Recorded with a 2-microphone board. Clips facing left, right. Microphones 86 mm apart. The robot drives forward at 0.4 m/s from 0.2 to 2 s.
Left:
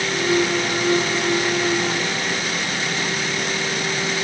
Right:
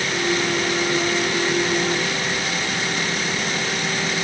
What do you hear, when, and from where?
Only background noise.